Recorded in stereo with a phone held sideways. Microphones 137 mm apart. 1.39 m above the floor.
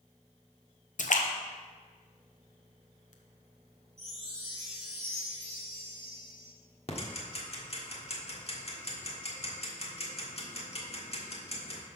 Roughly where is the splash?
Left.